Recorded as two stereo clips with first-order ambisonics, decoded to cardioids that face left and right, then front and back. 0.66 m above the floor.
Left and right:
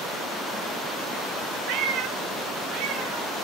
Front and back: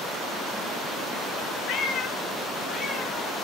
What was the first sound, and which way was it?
A cat meowing, 45° right.